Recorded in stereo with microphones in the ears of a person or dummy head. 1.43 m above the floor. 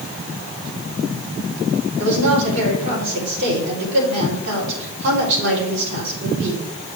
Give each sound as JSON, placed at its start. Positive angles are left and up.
{"t": 2.0, "sound": "a woman speaking", "side_deg": -55, "distance_m": 4.0}